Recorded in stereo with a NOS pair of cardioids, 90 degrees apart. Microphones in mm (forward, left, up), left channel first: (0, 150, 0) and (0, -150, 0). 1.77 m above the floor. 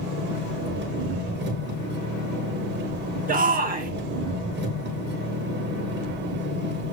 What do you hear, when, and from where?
0.0 s an engine running: 35° right, 2.5 m
3.3 s a shout: 30° right, 2 m